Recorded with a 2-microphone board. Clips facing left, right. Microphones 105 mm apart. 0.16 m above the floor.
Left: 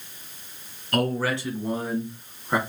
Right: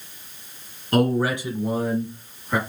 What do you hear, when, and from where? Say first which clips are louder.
0.9 s a man speaking: right 4 dB; 30° right (ahead or behind), 1.4 m; by 2.6 s 25° left (ahead or behind), 1.1 m